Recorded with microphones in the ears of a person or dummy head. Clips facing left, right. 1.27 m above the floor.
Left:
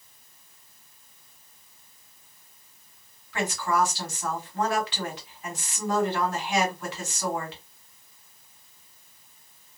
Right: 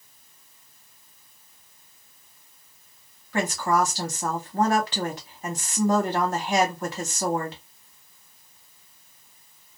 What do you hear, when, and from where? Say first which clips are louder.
3.3 s a woman speaking: right 3 dB; 35° right (ahead or behind), 0.9 m